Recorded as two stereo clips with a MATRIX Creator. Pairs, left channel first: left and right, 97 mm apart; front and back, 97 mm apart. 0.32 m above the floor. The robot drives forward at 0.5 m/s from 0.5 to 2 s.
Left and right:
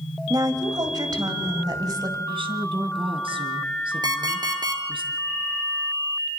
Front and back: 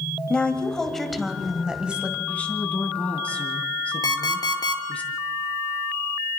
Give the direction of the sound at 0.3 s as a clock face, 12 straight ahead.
3 o'clock.